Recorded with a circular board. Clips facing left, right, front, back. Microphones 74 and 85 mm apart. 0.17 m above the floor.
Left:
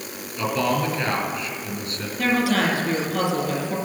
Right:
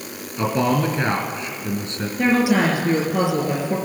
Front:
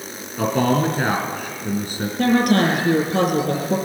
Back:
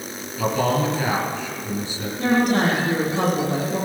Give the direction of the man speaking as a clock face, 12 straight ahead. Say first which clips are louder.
Right 3 dB, front 2 dB; 1 o'clock.